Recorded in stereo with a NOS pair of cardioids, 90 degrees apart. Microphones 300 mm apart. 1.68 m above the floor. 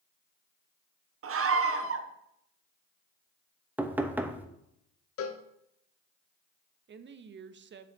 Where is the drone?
I don't hear a drone.